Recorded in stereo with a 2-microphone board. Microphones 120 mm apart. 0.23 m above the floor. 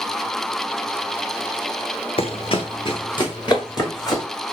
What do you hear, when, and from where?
2.2 s running footsteps: 50° left (ahead or behind), 0.6 m; by 4.2 s 35° left (ahead or behind), 1.8 m